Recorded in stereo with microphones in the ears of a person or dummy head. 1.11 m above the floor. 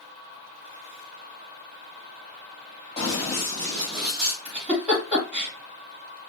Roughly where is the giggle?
Centre.